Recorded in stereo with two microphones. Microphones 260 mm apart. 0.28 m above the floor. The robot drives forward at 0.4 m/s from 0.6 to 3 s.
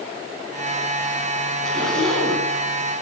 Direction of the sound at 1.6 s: Centre (ahead or behind).